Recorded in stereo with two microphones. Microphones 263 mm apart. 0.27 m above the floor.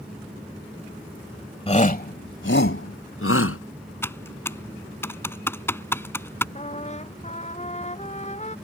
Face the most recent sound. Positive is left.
turn(degrees=25)  # may be behind; listen again after turning